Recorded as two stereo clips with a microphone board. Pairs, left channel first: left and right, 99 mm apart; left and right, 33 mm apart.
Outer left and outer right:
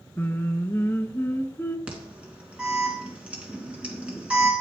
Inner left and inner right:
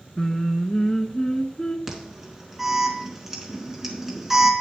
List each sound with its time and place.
0.2 s singing: 25° left (ahead or behind), 0.8 m
1.9 s an alarm: 15° right (ahead or behind), 2 m